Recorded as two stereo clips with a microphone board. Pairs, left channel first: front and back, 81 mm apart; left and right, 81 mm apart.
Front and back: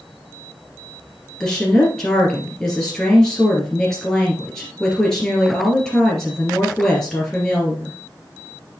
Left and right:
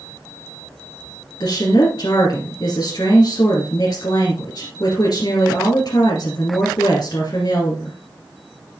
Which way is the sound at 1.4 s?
80° left.